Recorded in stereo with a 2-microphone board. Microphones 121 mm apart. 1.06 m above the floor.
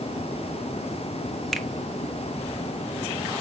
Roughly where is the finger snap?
Centre.